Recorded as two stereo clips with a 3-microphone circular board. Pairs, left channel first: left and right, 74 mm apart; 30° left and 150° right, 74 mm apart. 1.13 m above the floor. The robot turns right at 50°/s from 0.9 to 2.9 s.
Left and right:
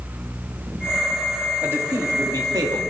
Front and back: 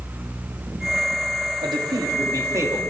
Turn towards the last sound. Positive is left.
turn(degrees=-90)